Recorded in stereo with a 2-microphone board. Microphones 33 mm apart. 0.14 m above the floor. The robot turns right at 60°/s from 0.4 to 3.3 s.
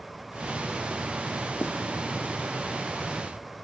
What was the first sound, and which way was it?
Writing, 65° left (ahead or behind).